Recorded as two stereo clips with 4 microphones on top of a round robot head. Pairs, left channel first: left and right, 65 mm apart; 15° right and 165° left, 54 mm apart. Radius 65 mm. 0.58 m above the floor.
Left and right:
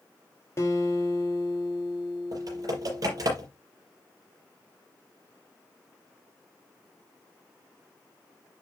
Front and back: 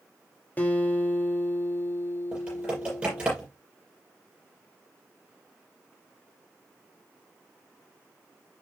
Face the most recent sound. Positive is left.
turn(degrees=-125)